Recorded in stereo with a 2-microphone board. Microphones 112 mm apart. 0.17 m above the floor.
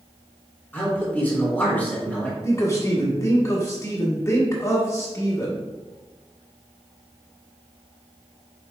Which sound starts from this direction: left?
A man speaking, at 2.4 s.